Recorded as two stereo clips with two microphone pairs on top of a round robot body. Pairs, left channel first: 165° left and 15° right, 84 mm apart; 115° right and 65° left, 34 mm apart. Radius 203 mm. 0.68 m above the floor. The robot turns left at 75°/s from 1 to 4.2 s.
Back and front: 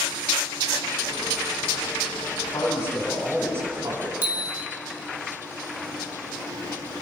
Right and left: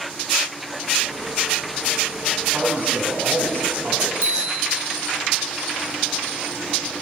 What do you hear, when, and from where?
2.3 s a man speaking: 145° left, 8.5 m; by 4.1 s 10° left, 8.5 m
4.2 s a bicycle bell: 50° left, 6 m